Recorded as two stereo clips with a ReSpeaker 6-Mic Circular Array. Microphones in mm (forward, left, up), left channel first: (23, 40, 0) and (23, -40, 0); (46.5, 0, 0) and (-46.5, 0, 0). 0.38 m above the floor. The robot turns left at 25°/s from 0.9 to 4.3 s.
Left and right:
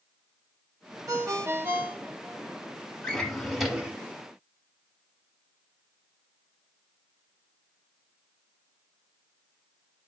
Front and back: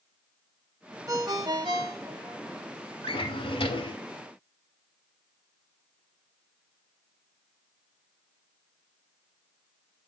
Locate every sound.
1.1 s a ringtone: 135° right, 0.7 m; by 2.4 s 165° right, 0.7 m
3.0 s a drawer: 10° left, 0.7 m; by 4.0 s 10° right, 0.7 m